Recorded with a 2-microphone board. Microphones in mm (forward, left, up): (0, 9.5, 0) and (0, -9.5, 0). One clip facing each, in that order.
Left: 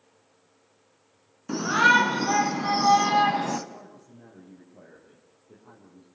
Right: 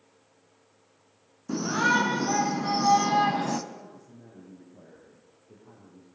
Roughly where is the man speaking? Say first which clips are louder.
Even; left.